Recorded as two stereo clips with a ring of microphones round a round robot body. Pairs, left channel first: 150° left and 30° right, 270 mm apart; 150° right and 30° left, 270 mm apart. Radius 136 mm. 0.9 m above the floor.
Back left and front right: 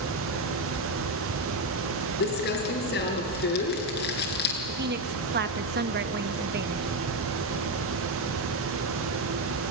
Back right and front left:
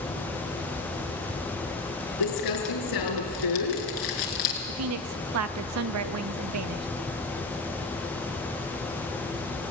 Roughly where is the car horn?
I don't hear a car horn.